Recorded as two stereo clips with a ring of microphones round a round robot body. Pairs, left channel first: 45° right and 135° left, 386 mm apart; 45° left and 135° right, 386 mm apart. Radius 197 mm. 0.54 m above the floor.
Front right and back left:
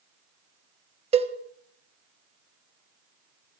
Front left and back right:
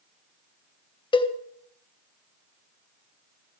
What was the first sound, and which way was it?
A cowbell, 95° left.